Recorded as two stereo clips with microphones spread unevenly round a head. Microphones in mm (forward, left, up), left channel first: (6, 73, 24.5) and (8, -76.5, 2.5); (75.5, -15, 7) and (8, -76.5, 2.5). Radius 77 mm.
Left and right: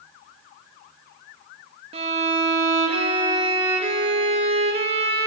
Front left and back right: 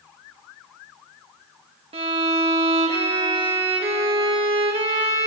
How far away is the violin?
About 2 m.